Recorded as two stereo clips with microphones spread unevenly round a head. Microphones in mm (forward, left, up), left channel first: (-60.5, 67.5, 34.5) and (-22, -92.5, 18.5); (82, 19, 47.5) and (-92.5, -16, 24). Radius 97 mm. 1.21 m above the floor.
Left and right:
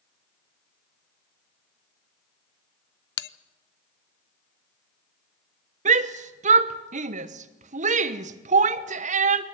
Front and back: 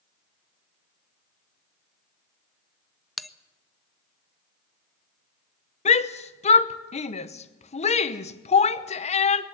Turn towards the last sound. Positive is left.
turn(degrees=-45)